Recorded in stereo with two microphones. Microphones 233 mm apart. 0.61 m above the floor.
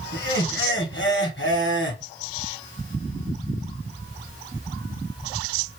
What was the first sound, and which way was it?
Laughter, 55° left (ahead or behind).